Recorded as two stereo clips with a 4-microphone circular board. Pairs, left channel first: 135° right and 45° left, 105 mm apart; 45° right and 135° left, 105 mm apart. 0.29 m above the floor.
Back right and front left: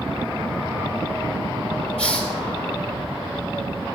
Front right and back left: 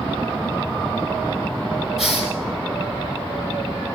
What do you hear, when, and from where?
2.0 s a hiss: 135° right, 4.5 m